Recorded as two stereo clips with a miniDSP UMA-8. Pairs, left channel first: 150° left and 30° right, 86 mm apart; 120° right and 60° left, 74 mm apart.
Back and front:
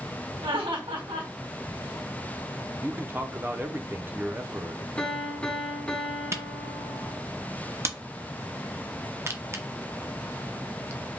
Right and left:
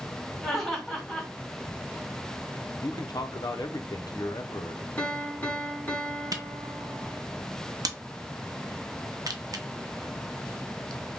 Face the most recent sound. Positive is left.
turn(degrees=25)